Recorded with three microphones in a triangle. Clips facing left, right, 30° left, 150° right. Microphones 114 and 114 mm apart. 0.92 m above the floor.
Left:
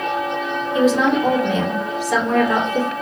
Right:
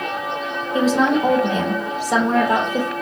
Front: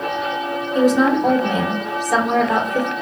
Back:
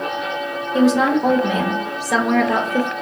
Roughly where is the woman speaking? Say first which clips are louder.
Left 1 dB, even; behind right.